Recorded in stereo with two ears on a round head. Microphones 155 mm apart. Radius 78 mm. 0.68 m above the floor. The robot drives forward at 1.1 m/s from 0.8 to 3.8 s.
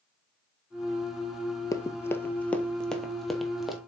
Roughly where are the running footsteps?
Left.